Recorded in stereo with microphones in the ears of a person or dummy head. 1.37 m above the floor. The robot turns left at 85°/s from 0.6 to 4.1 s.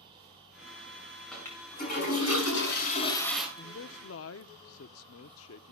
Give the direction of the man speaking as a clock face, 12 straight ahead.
8 o'clock.